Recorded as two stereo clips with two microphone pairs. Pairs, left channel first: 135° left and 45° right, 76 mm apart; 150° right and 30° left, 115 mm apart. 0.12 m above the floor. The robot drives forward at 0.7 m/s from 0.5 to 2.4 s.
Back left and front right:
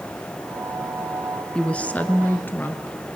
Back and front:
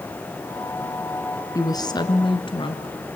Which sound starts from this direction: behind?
A woman speaking, at 1.6 s.